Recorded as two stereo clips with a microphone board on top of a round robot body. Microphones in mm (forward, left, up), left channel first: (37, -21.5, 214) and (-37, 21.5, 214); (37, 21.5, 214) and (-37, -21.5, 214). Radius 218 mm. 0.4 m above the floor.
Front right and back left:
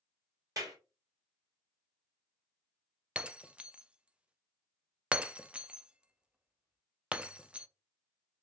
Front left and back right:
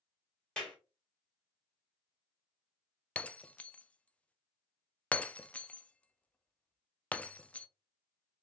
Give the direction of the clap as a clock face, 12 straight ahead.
8 o'clock.